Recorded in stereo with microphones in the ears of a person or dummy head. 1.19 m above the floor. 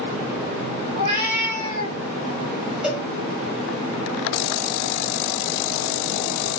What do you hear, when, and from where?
0.9 s a cat meowing: 45° right (ahead or behind), 1.7 m
2.8 s a cowbell: centre (ahead or behind), 1.5 m